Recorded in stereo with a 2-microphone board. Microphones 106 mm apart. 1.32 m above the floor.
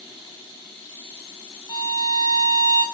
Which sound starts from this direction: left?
A violin, at 1.7 s.